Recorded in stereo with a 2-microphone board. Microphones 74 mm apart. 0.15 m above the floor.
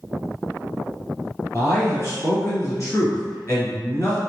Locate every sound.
1.5 s a man speaking: 40° left (ahead or behind), 1.9 m